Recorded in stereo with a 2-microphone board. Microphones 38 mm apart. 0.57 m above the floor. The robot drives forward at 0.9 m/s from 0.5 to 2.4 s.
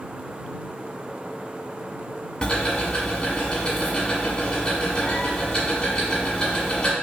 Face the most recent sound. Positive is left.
turn(degrees=15)  # may be behind; listen again after turning